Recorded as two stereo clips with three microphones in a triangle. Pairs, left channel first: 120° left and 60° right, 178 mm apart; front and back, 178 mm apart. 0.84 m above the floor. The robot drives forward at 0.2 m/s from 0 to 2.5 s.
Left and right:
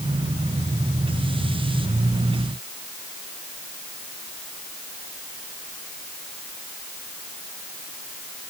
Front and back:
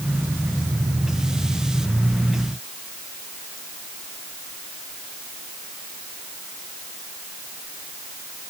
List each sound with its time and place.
Only background noise.